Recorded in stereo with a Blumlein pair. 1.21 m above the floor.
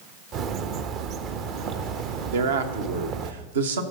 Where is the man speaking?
60° right, 1.2 m.